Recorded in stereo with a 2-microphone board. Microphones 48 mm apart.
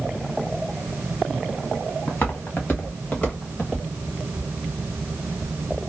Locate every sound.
2.1 s footsteps: 50° left (ahead or behind), 1.7 m; by 3.8 s 25° left (ahead or behind), 2.5 m